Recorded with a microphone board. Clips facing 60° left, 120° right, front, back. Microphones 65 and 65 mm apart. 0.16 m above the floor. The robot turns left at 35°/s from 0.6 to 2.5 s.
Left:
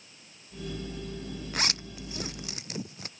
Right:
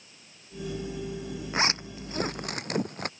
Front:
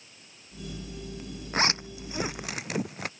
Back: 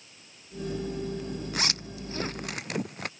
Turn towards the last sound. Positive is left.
turn(degrees=-90)